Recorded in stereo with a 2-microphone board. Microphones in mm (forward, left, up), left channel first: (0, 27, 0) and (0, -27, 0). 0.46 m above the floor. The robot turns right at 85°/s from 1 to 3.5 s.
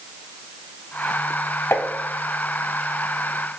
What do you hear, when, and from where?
1.7 s tapping: 55° left (ahead or behind), 1.0 m; by 1.9 s 40° left (ahead or behind), 1.0 m